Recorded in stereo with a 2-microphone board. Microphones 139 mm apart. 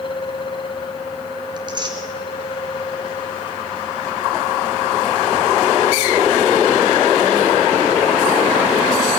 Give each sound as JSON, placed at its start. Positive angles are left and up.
{"t": 1.6, "sound": "tearing paper", "side_deg": -30, "distance_m": 2.5}